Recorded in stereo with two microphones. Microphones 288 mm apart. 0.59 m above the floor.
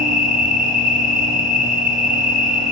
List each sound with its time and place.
0.0 s an insect: 65° right (ahead or behind), 3 m